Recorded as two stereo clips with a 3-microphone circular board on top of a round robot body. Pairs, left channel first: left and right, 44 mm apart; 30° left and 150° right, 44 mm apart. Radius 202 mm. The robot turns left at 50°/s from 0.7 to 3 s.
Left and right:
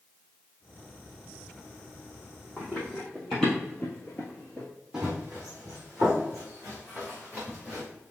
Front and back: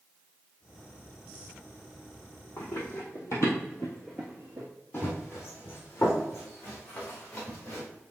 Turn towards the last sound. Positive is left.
turn(degrees=0)